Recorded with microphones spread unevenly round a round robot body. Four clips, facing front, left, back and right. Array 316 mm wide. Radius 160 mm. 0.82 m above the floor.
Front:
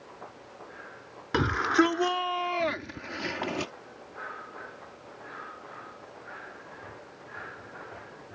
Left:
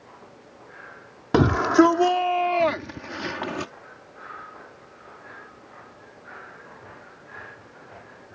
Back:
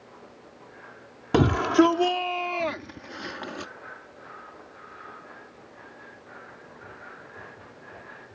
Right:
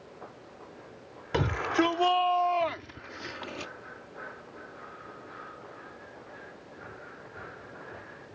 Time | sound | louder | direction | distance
1.3 | a shout | left 10 dB, back 5 dB | 125° left | ?